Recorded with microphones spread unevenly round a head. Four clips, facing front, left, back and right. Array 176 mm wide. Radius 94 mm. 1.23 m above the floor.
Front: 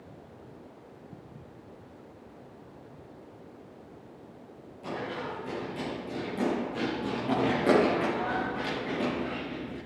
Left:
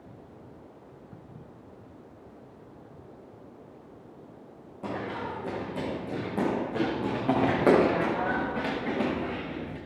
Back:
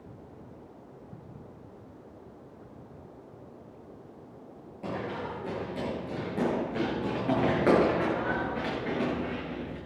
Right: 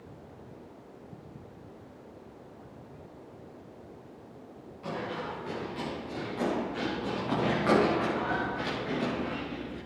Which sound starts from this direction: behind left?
Running footsteps, at 4.8 s.